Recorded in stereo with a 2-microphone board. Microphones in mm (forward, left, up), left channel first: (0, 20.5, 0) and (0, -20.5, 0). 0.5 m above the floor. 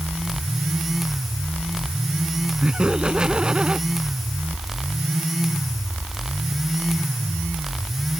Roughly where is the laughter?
Right.